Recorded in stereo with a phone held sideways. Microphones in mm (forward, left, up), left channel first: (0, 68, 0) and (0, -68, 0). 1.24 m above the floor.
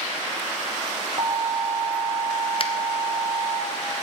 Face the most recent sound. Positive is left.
turn(degrees=45)  # may be behind; listen again after turning